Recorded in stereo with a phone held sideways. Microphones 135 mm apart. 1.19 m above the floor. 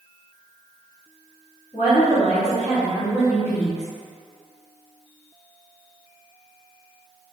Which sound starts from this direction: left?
A woman speaking, at 1.7 s.